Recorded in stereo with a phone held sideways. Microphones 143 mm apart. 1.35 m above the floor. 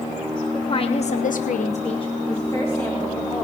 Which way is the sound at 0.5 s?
35° left (ahead or behind).